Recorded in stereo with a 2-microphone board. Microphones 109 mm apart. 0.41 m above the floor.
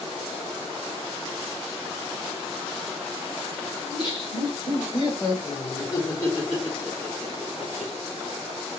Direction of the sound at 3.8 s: 40° left (ahead or behind).